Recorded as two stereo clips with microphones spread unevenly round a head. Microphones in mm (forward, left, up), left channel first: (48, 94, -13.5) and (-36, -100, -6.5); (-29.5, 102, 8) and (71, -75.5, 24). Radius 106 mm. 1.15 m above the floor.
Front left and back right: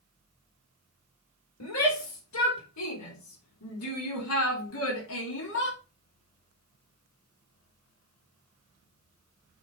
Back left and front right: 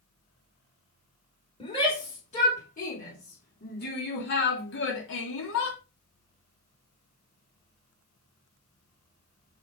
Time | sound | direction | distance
1.6 | a shout | 60° left | 4 m